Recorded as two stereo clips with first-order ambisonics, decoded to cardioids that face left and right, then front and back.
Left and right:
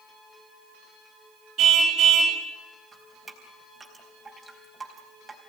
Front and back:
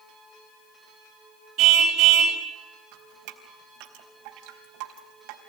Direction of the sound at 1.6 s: 140° right.